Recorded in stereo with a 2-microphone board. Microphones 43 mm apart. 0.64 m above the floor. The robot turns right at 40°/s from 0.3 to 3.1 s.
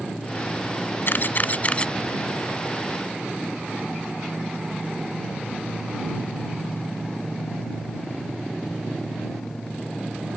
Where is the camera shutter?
60° left (ahead or behind); by 1.9 s 25° left (ahead or behind).